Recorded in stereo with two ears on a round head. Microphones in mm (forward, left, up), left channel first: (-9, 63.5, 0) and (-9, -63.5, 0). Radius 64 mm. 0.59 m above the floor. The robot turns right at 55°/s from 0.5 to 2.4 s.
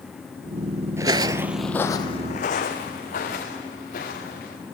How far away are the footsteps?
About 0.6 m.